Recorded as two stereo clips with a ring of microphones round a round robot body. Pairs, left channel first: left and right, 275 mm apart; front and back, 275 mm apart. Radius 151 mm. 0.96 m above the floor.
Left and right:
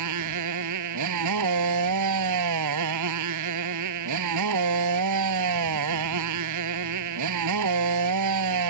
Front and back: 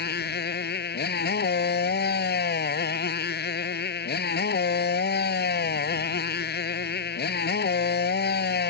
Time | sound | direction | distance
0.0 | a motorcycle | 55° right | ?